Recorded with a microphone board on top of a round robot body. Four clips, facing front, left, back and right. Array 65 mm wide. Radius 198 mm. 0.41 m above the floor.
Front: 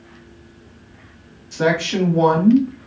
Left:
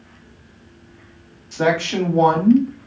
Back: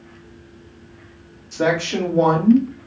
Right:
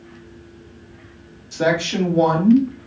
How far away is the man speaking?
About 1.8 m.